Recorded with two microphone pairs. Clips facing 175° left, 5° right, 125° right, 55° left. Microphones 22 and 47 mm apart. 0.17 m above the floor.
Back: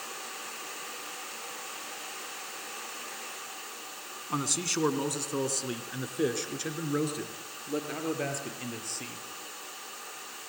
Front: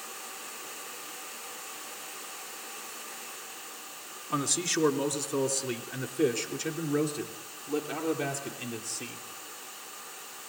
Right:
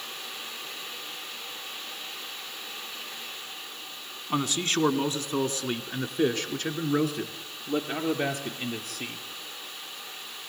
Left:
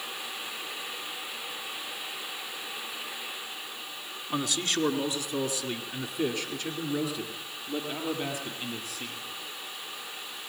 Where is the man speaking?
110° right, 1.7 m; by 9.2 s 105° right, 4.5 m.